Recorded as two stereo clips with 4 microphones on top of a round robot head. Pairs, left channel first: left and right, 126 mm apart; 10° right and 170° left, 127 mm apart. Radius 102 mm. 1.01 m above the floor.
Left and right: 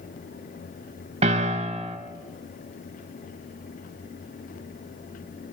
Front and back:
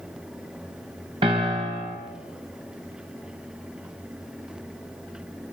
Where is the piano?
125° right, 3.5 m.